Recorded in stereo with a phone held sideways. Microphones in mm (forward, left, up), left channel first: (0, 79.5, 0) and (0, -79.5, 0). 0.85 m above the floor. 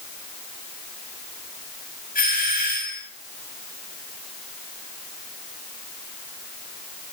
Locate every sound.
2.1 s a doorbell: 65° left (ahead or behind), 8 m